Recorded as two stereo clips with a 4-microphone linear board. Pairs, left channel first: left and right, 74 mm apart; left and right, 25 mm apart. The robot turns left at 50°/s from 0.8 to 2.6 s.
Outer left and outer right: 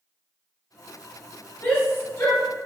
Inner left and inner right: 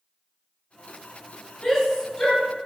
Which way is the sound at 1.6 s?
30° left (ahead or behind).